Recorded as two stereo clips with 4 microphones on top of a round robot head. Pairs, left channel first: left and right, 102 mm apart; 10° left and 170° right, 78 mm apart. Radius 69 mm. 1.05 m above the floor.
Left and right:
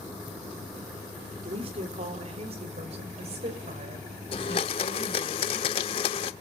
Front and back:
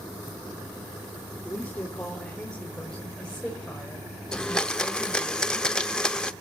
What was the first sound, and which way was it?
A woman speaking, 65° right.